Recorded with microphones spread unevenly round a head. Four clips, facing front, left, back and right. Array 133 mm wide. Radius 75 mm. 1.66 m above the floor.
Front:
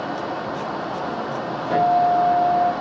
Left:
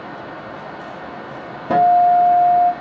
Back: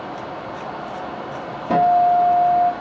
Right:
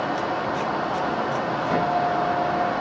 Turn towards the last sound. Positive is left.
turn(degrees=120)